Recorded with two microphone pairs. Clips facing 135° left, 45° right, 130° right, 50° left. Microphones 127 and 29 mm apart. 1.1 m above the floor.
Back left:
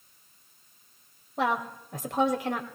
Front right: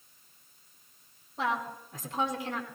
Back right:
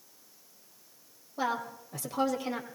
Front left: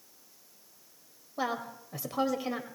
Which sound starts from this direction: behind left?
A woman speaking, at 1.4 s.